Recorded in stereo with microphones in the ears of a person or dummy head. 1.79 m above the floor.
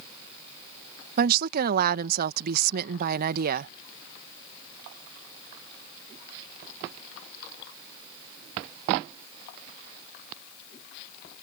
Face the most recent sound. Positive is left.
turn(degrees=-55)  # may be behind; listen again after turning